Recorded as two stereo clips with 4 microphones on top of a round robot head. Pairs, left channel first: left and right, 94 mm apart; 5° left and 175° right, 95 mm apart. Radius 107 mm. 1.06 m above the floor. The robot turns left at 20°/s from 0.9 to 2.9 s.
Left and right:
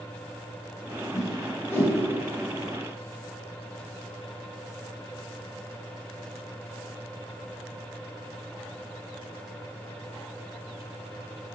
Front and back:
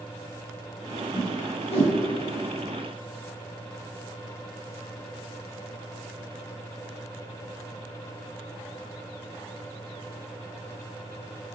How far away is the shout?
I don't hear a shout.